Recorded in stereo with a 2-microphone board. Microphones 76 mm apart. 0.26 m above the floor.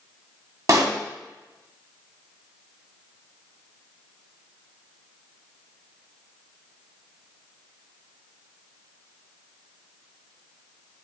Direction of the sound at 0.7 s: 45° right (ahead or behind).